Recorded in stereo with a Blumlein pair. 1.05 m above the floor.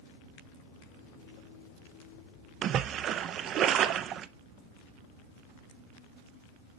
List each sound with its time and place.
2.6 s a splash: 30° right, 0.5 m